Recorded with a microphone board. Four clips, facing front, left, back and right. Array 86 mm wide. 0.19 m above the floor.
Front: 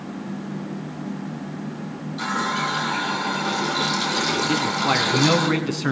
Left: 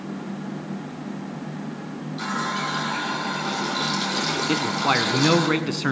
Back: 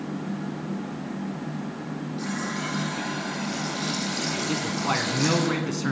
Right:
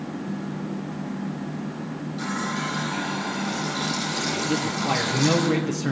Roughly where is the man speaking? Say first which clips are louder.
Left 3 dB, front 4 dB; ahead left.